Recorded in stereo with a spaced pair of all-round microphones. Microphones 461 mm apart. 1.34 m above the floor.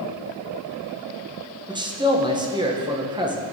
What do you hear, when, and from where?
1.7 s a man speaking: 10° right (ahead or behind), 0.7 m